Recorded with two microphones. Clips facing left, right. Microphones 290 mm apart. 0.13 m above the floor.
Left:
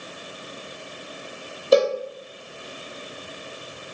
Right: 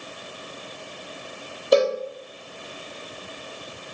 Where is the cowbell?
Centre (ahead or behind), 1.0 m.